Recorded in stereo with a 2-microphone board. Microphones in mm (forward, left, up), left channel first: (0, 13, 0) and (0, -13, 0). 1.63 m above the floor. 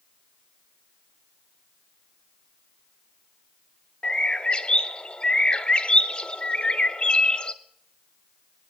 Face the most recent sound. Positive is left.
turn(degrees=45)  # may be behind; listen again after turning